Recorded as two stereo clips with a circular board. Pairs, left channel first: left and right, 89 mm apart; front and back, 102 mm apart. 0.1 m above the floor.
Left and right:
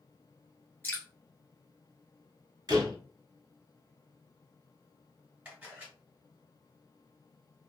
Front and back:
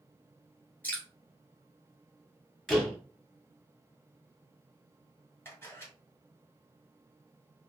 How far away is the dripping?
About 1.0 m.